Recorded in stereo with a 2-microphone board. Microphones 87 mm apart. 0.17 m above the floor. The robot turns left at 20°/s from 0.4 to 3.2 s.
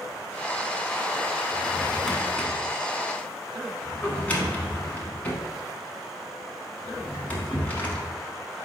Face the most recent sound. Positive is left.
turn(degrees=20)  # may be behind; listen again after turning